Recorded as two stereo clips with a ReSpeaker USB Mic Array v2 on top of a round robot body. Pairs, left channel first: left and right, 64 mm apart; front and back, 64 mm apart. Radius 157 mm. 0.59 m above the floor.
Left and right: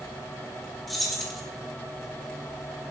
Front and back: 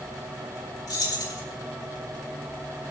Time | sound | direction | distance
0.9 | keys jangling | straight ahead | 3.5 m